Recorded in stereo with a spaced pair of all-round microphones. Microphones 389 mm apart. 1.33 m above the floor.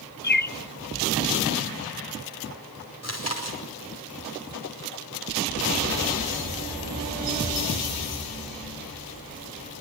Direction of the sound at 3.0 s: 40° left (ahead or behind).